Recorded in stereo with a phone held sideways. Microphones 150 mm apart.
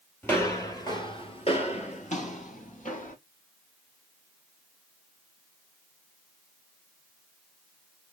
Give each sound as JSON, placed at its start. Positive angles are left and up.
{"t": 0.2, "sound": "footsteps", "side_deg": 15, "distance_m": 2.0}